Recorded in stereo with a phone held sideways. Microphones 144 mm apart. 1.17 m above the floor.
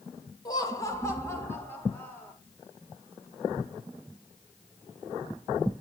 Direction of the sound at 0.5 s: 25° left (ahead or behind).